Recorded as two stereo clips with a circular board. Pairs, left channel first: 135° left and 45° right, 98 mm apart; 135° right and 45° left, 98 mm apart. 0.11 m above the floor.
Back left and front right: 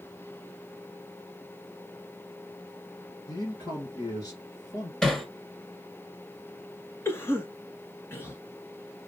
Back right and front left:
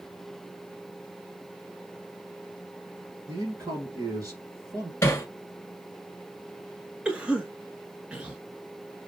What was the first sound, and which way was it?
A man speaking, 95° left.